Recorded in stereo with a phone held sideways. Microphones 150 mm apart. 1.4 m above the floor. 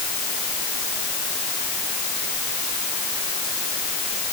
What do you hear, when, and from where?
Only background noise.